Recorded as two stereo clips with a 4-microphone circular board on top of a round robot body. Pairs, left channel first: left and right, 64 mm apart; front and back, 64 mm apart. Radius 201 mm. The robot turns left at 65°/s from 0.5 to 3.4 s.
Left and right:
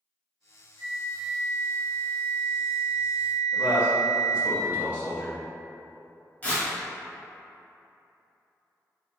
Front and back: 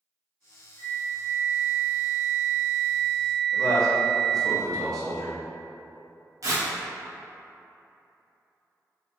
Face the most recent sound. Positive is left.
turn(degrees=155)